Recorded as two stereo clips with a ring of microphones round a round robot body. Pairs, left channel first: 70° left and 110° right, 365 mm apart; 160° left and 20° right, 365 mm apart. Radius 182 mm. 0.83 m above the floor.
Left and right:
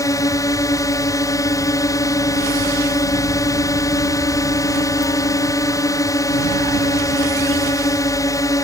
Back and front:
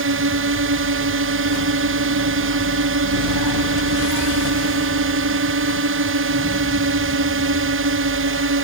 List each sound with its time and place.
0.0 s a drone: 5° right